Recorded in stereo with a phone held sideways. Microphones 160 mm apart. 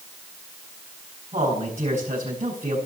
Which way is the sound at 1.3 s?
40° right (ahead or behind).